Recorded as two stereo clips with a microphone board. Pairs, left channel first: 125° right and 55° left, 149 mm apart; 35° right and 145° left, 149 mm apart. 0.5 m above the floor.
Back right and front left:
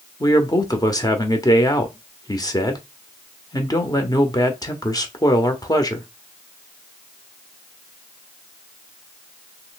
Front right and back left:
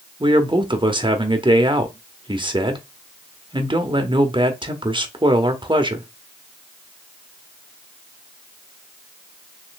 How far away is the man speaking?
About 1.0 m.